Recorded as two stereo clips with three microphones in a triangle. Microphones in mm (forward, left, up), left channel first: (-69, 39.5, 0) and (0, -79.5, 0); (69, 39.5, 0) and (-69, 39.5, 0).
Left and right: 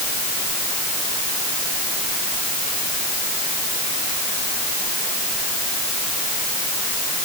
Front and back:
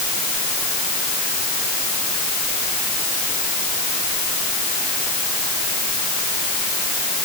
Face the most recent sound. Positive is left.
No sound to turn to.